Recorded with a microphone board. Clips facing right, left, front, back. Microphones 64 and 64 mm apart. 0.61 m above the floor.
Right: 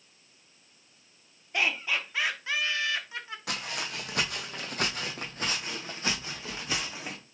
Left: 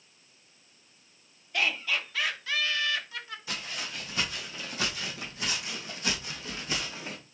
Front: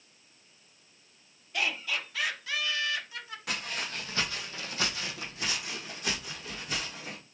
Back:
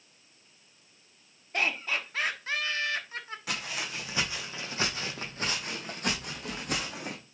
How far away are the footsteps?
About 1.8 m.